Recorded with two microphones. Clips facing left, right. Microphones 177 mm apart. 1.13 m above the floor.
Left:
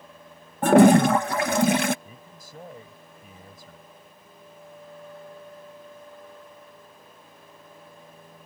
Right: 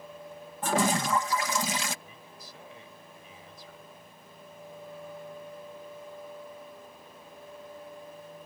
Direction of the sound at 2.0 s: 50° left (ahead or behind).